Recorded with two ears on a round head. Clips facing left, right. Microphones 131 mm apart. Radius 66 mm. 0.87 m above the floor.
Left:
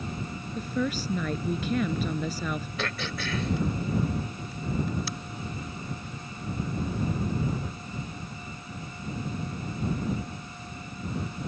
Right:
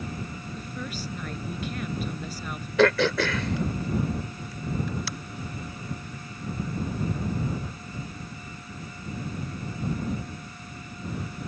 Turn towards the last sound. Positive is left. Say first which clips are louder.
# right 13 dB
turn(degrees=-55)  # may be behind; listen again after turning